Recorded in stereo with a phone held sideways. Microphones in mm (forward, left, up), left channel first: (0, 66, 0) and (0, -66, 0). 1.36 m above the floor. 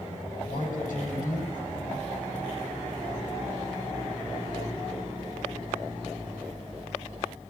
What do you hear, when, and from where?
0.4 s a man speaking: 80° left, 9 m